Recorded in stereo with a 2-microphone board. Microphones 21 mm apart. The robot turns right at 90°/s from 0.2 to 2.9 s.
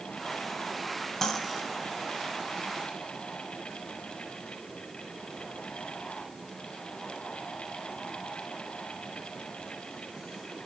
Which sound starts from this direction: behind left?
Cutlery clinking, at 1.2 s.